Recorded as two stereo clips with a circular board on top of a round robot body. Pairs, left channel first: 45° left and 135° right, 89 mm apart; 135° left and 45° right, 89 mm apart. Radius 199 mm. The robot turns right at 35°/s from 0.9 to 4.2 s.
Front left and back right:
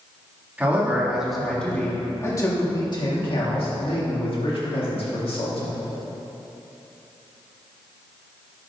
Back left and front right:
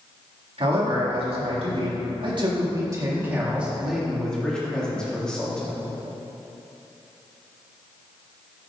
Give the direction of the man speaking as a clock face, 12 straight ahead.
2 o'clock.